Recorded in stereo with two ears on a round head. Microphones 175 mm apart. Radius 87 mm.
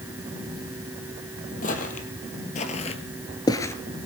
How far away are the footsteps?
About 2.5 m.